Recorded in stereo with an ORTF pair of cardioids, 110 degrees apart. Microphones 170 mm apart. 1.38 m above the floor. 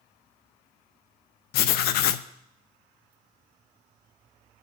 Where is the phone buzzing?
I don't hear a phone buzzing.